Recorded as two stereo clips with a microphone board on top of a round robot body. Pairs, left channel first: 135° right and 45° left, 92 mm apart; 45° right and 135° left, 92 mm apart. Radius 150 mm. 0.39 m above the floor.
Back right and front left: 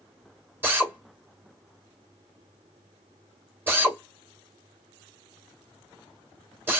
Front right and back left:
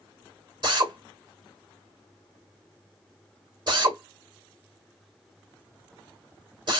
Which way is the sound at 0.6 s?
110° left.